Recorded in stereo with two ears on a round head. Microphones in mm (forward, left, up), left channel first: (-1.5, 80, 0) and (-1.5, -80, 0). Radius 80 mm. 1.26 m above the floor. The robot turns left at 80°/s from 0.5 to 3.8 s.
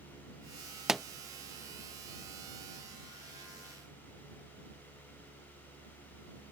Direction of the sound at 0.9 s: 5° right (ahead or behind).